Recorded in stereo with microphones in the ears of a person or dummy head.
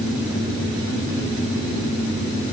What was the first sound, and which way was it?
Only background noise.